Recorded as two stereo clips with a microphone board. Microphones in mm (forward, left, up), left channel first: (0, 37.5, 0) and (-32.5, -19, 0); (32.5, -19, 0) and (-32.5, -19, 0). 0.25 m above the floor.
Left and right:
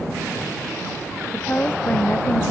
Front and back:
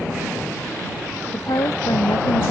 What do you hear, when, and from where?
1.3 s a woman speaking: straight ahead